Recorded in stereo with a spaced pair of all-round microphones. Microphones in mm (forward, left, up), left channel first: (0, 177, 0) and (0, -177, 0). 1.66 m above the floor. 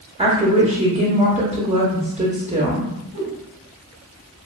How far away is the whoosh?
About 1.0 m.